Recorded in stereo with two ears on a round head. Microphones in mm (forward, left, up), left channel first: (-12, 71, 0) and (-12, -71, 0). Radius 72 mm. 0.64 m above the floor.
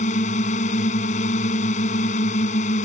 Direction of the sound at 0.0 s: 45° left (ahead or behind).